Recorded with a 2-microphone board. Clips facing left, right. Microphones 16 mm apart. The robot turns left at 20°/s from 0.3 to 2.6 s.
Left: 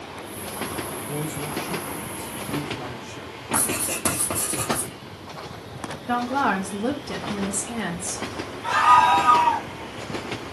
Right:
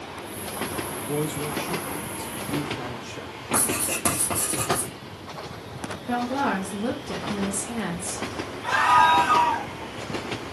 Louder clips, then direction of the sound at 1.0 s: Right 2 dB; 85° right.